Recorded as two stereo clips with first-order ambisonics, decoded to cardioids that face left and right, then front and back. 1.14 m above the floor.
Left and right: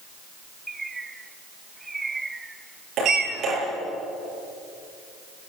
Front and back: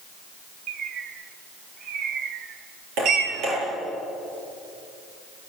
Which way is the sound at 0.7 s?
160° right.